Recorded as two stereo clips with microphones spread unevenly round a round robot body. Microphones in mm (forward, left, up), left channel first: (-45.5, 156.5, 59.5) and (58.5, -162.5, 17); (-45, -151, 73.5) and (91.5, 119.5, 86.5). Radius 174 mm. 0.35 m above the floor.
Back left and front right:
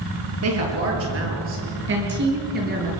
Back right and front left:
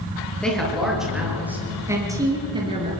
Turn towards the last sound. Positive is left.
turn(degrees=-10)